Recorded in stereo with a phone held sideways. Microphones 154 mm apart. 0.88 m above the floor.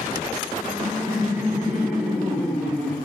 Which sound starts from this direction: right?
Laughter, at 0.6 s.